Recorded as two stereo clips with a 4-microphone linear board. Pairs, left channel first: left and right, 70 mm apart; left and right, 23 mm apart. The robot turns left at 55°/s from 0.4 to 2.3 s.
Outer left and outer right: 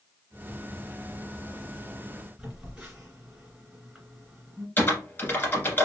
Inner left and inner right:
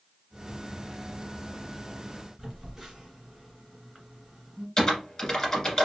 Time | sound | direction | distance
2.4 | a phone buzzing | 20° right (ahead or behind) | 1.9 m
4.8 | typing on a keyboard | 30° left (ahead or behind) | 1.6 m